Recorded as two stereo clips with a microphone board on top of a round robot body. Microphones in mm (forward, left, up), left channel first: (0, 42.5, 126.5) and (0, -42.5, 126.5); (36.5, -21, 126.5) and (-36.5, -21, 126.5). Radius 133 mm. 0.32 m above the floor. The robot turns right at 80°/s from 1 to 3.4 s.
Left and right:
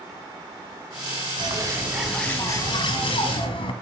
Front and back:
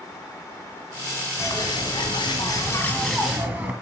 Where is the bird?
55° right, 2.0 m; by 3.7 s 110° left, 2.0 m.